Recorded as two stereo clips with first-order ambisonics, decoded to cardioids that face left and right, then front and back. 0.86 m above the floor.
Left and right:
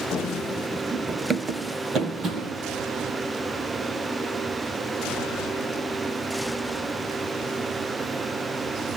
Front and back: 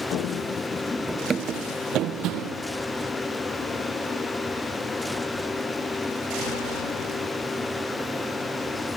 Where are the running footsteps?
25° left, 1.4 m; by 2.6 s 145° right, 2.5 m.